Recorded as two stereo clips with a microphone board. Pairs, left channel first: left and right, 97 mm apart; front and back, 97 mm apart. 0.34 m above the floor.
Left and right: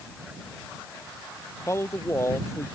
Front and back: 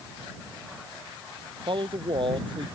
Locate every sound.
1.7 s a man speaking: 150° left